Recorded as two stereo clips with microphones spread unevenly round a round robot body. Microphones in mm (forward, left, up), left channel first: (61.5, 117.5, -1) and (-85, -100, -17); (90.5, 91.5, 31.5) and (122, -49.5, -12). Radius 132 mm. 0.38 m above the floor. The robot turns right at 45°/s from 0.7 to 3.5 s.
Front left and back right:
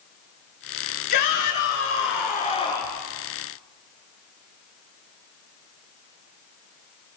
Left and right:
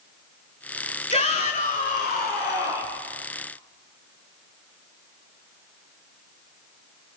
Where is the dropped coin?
I don't hear a dropped coin.